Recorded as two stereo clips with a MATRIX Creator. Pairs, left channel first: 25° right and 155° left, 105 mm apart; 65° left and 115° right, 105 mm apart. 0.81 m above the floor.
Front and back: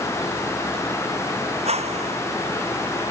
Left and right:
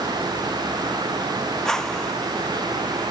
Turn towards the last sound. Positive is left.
turn(degrees=150)